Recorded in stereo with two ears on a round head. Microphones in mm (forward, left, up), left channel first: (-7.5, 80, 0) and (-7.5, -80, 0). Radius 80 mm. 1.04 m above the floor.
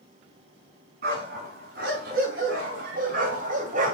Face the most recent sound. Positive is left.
turn(degrees=-45)  # may be behind; listen again after turning